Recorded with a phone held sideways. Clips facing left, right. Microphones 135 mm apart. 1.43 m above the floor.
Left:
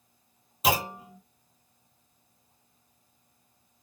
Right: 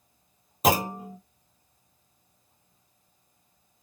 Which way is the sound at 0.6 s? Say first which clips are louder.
Right 4 dB; 45° right (ahead or behind).